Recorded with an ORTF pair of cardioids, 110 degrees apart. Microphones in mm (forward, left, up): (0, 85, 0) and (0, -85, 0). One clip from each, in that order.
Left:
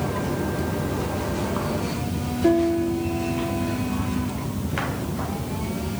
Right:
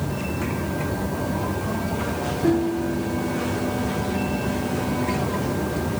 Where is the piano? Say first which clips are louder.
Left 3 dB; 25° left, 1.5 m.